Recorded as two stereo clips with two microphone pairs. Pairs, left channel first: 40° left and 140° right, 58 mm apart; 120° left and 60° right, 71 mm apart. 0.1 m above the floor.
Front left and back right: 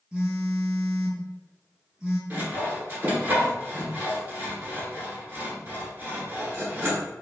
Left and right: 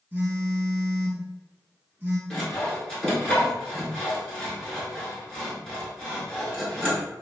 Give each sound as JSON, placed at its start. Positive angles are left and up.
{"t": 0.1, "sound": "a phone buzzing", "azimuth_deg": -85, "distance_m": 1.4}
{"t": 2.3, "sound": "sawing", "azimuth_deg": -170, "distance_m": 1.6}